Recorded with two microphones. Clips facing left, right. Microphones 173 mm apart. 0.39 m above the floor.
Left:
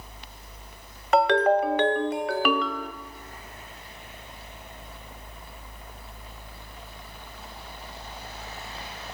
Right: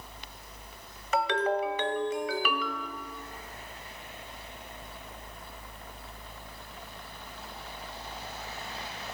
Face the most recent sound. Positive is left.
turn(degrees=65)  # may be behind; listen again after turning